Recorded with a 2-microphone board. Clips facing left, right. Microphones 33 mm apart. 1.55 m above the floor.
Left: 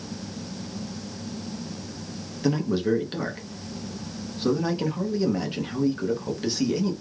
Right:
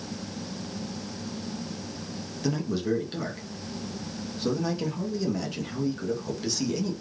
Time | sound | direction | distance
2.4 | a man speaking | 25° left (ahead or behind) | 0.8 m